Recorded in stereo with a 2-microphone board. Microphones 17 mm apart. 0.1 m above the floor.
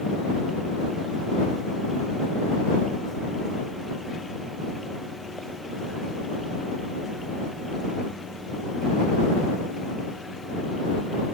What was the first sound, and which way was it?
Only background noise.